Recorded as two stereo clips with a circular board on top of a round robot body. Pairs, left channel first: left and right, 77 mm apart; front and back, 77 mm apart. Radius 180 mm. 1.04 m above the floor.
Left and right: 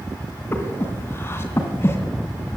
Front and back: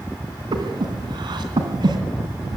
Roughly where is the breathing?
Behind left.